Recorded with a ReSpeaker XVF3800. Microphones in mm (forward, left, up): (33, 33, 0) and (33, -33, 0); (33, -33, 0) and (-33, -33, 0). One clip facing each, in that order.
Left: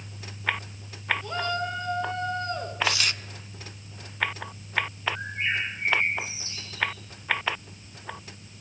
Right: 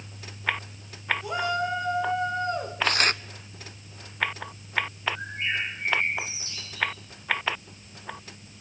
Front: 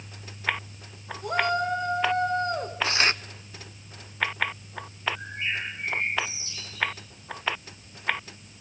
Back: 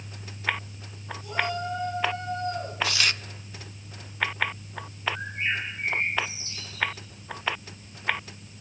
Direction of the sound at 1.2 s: 10° right.